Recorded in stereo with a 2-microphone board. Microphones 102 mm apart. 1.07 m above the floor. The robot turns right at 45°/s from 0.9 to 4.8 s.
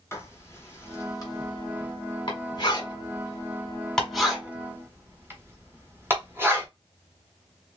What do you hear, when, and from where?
0.1 s writing: 25° left (ahead or behind), 1.4 m; by 6.7 s 25° right (ahead or behind), 1.4 m